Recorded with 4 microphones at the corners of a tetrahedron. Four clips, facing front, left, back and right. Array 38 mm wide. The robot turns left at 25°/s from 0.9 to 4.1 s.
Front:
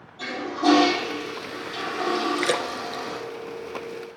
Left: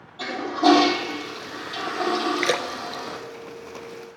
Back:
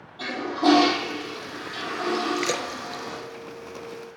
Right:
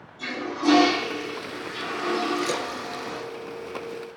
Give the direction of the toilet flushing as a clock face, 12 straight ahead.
8 o'clock.